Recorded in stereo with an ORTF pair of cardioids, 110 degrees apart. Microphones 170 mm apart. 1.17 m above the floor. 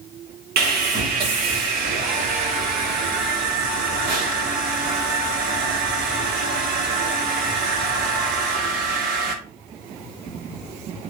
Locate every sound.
0.6 s sawing: 65° right, 1.4 m